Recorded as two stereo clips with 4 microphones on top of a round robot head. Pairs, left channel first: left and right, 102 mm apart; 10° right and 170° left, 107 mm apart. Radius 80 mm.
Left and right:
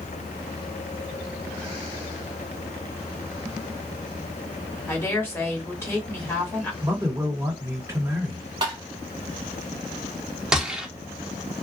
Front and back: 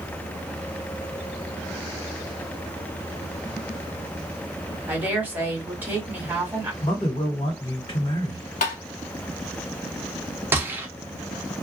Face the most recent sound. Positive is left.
turn(degrees=-160)